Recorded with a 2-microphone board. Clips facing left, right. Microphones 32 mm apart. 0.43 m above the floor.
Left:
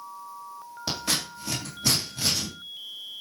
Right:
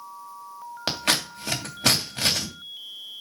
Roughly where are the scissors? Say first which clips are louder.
Right 4 dB; right.